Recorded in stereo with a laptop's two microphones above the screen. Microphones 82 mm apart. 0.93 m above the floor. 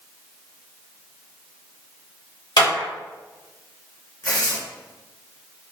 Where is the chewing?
I don't hear chewing.